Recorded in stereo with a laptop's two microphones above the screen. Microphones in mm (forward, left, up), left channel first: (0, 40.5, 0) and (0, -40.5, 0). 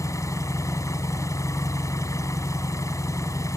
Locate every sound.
0.0 s an engine running: 45° left (ahead or behind)